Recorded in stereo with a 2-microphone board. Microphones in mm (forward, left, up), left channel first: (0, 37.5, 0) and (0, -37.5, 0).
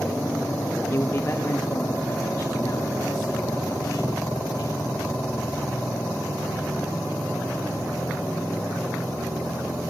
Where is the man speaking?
30° left (ahead or behind), 1.5 m; by 5.5 s 45° left (ahead or behind), 5.5 m.